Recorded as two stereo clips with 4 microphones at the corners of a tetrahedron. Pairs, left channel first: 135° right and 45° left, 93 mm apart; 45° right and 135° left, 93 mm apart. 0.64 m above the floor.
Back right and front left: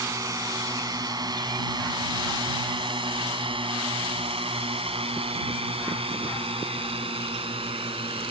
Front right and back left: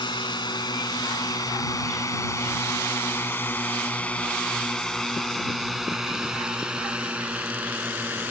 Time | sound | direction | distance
0.0 | a drone | 10° right | ?